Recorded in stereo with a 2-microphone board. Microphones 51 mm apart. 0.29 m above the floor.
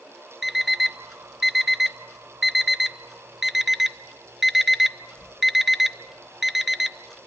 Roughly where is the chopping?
I don't hear chopping.